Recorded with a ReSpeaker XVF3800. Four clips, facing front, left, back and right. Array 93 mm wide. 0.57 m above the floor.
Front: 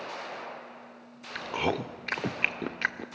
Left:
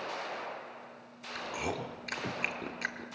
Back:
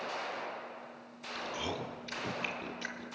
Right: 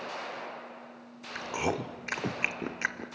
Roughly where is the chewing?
Ahead right.